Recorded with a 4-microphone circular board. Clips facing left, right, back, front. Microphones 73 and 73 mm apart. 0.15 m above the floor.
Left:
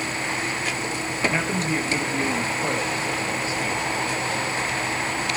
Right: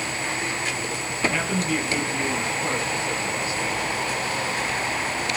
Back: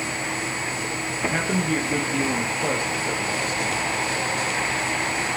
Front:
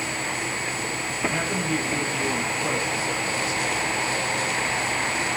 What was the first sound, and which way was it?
A man speaking, 150° left.